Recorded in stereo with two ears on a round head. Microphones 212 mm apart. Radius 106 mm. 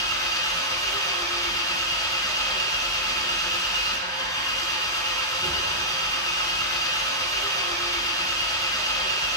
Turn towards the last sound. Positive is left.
turn(degrees=15)  # may be behind; listen again after turning